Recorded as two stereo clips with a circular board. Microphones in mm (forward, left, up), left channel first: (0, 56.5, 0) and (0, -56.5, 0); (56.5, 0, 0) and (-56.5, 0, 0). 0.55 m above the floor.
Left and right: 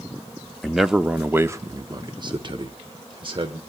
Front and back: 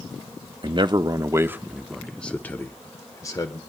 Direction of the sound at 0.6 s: 175° left.